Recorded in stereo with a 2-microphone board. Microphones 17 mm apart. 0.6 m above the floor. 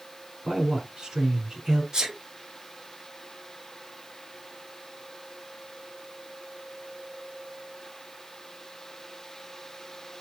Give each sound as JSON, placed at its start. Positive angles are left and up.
{"t": 0.5, "sound": "a man speaking", "side_deg": -55, "distance_m": 2.0}
{"t": 1.9, "sound": "a sneeze", "side_deg": -60, "distance_m": 2.0}